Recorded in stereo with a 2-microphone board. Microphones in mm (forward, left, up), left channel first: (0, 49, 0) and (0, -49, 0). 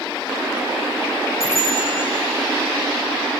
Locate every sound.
1.4 s a bicycle bell: 80° left, 9.5 m